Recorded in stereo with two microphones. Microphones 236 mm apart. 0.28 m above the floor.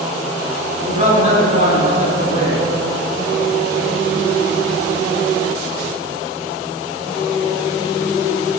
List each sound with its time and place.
0.8 s a man speaking: 30° right (ahead or behind), 2.5 m